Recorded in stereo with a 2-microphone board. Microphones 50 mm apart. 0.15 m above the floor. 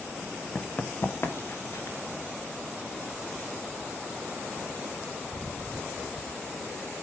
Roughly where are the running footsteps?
Left.